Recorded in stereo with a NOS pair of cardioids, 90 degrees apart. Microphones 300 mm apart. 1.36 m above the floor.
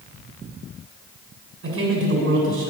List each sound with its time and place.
1.6 s a man speaking: 50° right, 7 m